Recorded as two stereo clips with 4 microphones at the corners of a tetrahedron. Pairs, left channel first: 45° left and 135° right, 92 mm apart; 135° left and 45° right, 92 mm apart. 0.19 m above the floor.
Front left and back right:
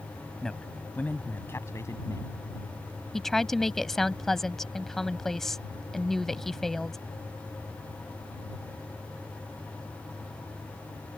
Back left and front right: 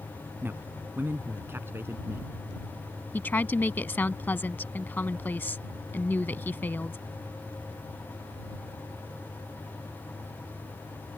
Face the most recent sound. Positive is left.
turn(degrees=125)